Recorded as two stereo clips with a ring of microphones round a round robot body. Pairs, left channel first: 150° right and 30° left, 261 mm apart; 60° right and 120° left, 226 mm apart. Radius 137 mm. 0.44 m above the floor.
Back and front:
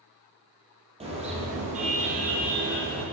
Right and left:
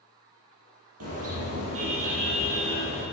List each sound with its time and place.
1.0 s a car horn: 100° left, 5.5 m; by 3.0 s 90° left, 6.5 m